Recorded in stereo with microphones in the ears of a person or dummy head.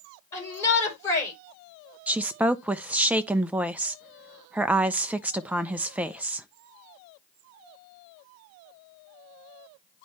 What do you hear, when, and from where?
0.3 s a shout: 20° left (ahead or behind), 5 m
2.1 s a woman speaking: 5° right (ahead or behind), 0.7 m